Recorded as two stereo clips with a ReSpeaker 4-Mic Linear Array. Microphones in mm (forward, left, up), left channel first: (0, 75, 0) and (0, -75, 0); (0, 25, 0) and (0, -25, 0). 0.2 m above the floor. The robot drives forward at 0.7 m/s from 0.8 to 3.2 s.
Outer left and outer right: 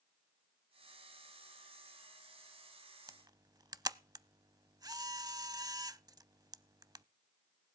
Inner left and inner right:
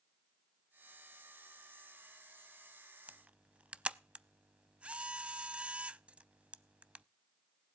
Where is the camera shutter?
25° right (ahead or behind), 0.5 m.